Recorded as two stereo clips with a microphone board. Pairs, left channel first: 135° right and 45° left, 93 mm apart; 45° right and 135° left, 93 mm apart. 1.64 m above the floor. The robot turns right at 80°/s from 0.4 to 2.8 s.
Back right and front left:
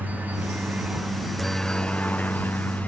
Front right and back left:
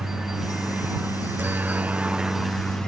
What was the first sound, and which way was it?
A helicopter, 55° left.